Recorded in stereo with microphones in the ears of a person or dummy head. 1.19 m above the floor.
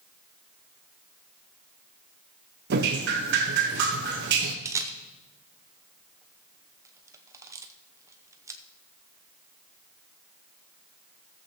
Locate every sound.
2.7 s dripping: 55° right (ahead or behind), 1.1 m
4.7 s a camera shutter: 10° right (ahead or behind), 0.6 m